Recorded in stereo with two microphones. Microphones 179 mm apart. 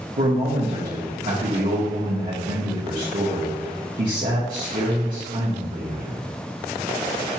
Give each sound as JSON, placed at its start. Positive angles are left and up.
{"t": 0.2, "sound": "a man speaking", "side_deg": -50, "distance_m": 1.1}